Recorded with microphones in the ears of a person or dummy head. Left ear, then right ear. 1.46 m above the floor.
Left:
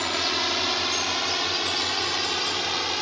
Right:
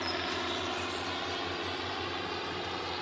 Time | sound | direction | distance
0.0 | a drone | 70° left (ahead or behind) | ?